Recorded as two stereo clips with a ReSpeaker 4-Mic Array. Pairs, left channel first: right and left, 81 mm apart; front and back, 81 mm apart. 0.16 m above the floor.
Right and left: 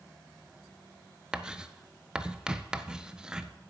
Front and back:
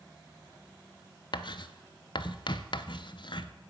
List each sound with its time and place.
1.3 s writing: 10° left, 0.6 m